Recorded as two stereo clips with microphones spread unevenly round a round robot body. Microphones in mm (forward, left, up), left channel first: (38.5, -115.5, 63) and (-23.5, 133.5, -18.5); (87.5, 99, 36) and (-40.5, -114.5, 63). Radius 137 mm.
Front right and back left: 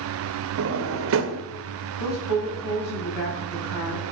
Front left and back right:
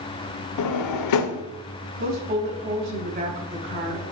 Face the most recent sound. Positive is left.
turn(degrees=-65)